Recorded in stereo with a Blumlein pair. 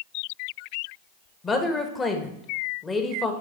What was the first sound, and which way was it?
A woman speaking, 15° left.